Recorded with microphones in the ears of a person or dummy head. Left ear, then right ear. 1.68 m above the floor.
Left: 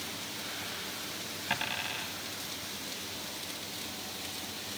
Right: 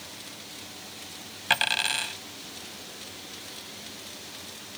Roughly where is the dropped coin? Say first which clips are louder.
Right 10 dB; right.